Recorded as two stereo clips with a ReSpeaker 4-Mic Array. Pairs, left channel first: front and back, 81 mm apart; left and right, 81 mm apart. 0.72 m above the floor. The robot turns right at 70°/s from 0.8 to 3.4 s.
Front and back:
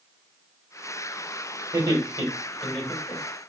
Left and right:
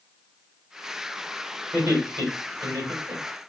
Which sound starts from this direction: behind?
Laughter, at 1.7 s.